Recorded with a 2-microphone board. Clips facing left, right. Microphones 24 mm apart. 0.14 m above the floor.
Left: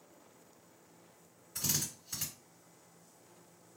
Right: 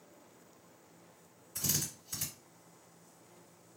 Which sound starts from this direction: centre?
A drill, at 1.6 s.